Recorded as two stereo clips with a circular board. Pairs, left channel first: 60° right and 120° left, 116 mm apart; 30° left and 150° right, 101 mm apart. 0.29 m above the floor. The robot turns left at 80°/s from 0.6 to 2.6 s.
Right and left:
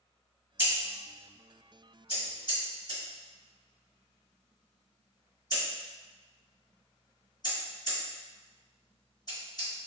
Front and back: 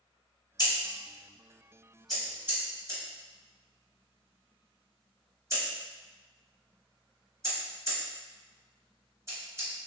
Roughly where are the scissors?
Ahead left.